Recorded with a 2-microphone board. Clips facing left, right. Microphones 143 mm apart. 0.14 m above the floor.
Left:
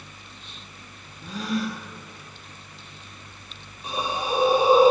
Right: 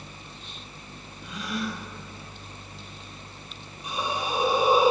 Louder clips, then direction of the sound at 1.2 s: Left 4 dB; 35° left (ahead or behind).